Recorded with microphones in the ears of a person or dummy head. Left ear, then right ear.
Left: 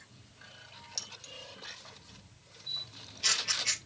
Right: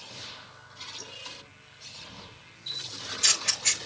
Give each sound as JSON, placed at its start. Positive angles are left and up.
{"t": 1.0, "sound": "keys jangling", "side_deg": 75, "distance_m": 2.5}
{"t": 2.7, "sound": "a camera shutter", "side_deg": -50, "distance_m": 3.5}